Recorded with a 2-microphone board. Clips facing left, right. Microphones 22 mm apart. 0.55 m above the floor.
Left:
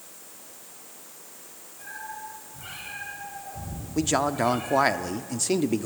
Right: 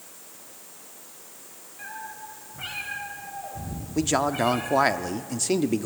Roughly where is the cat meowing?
Right.